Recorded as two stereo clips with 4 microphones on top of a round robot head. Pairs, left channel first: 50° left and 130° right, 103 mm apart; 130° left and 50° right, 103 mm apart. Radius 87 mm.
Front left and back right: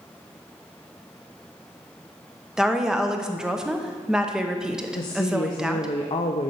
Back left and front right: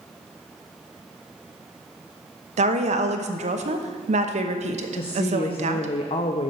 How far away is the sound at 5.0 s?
About 0.6 m.